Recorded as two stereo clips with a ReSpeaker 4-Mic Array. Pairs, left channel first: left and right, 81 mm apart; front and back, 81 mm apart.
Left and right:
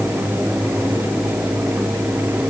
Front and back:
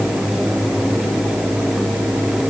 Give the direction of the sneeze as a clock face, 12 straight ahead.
No sneeze in this recording.